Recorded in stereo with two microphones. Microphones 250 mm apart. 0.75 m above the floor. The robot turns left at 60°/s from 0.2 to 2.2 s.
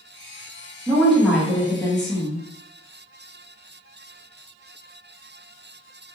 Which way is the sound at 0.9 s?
5° right (ahead or behind).